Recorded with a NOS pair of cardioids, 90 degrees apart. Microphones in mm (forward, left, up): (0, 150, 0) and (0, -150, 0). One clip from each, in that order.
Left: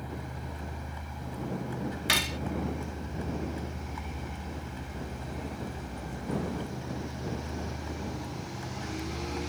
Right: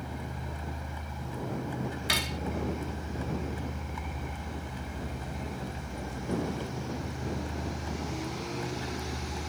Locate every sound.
0.0 s a vehicle: 15° right
2.1 s cutlery clinking: 20° left